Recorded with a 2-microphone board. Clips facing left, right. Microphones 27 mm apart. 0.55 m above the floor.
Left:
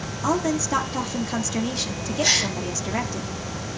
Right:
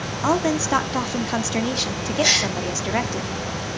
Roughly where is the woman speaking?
Centre.